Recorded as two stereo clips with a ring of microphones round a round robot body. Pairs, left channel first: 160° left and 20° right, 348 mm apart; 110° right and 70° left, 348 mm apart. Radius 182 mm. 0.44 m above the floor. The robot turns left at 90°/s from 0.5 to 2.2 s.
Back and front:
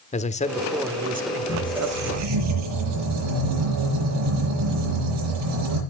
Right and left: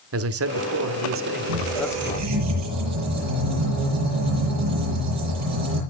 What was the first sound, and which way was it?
A man speaking, 95° left.